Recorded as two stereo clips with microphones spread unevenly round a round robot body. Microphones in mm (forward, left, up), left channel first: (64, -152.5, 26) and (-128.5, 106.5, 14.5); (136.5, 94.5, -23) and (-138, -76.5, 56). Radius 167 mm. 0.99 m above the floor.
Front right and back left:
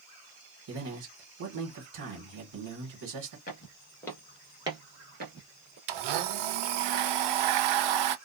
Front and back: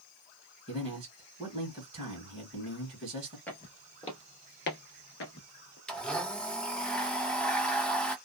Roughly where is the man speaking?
Behind left.